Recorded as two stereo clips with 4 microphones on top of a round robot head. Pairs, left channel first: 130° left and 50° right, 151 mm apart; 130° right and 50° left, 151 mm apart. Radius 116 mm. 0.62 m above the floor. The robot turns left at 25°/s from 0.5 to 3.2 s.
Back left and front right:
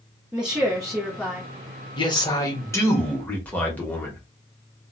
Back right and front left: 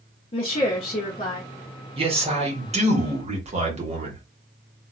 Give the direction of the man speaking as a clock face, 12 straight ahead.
9 o'clock.